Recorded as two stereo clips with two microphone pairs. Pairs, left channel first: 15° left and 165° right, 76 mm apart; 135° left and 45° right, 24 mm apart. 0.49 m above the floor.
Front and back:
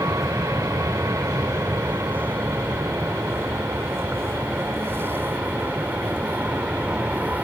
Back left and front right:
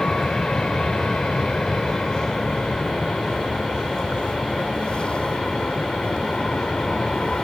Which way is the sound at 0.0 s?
Straight behind.